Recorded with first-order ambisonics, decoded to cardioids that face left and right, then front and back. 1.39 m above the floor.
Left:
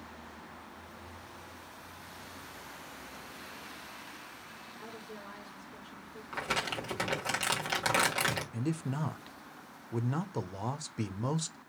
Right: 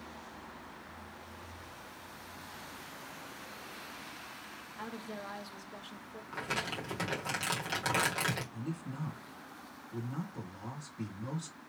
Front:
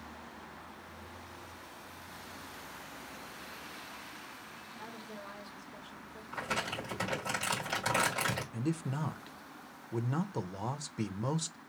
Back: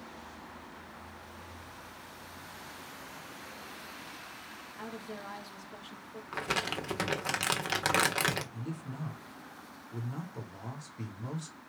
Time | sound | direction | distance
4.8 | a woman speaking | 125° right | 0.9 m
6.3 | crumpling | 160° left | 1.2 m
8.5 | a man speaking | 50° left | 0.6 m